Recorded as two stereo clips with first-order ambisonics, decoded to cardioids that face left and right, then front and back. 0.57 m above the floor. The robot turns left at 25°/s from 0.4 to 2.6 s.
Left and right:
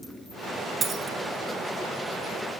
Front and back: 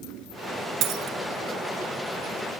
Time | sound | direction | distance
0.8 | a dropped coin | 155° right | 1.4 m